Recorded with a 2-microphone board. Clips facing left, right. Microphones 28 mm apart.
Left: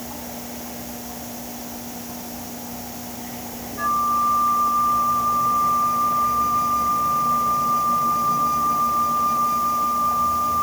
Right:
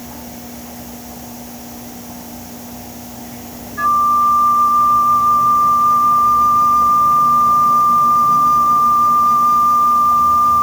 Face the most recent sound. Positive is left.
turn(degrees=-55)  # may be behind; listen again after turning